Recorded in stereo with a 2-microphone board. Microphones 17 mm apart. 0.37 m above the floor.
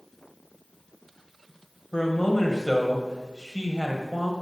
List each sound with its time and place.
1.9 s a man speaking: 35° left (ahead or behind), 1.6 m